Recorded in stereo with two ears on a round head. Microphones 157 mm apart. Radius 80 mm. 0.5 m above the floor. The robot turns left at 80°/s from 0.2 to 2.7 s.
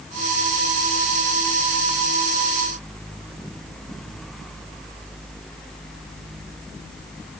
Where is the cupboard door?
I don't hear a cupboard door.